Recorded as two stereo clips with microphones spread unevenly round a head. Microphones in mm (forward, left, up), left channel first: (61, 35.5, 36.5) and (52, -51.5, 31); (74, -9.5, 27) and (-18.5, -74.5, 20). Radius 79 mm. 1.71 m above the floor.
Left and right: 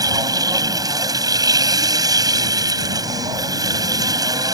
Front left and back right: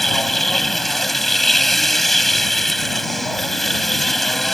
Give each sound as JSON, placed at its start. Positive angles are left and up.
{"t": 0.0, "sound": "a machine running", "azimuth_deg": -55}